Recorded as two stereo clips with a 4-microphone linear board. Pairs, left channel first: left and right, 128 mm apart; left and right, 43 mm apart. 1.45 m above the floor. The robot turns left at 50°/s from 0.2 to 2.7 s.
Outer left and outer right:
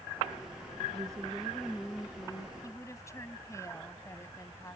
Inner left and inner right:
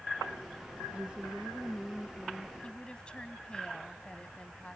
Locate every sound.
0.9 s a woman speaking: 145° right; by 2.5 s 135° left
2.6 s a woman speaking: 25° left (ahead or behind)